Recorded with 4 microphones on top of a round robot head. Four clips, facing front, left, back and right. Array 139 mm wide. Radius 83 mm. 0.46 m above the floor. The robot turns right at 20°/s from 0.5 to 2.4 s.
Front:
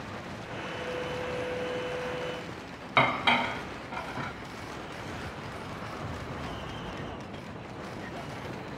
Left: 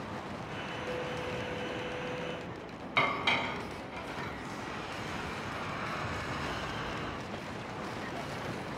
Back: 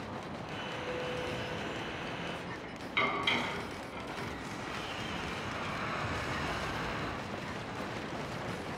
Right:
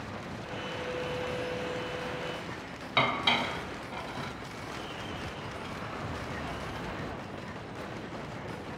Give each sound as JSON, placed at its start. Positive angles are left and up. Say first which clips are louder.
{"t": 3.0, "sound": "dishes clattering", "louder": "right 2 dB, front 8 dB", "azimuth_deg": -20, "distance_m": 2.5}